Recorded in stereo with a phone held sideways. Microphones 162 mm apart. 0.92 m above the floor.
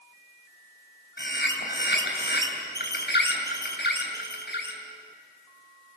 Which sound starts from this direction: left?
A bird, at 1.2 s.